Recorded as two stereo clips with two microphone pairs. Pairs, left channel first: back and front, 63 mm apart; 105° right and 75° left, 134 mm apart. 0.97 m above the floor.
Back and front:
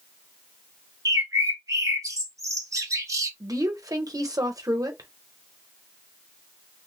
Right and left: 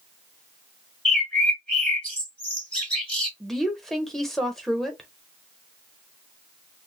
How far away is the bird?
About 1.0 m.